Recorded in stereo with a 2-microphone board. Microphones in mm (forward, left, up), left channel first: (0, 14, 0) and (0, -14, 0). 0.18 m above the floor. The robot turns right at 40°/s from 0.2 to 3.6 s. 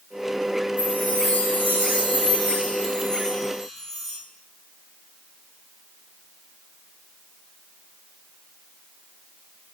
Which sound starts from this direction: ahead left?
A chime, at 0.8 s.